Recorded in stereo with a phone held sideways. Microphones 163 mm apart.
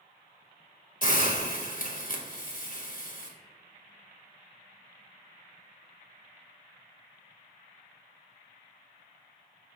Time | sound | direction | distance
1.0 | a hiss | 55° left (ahead or behind) | 1.4 m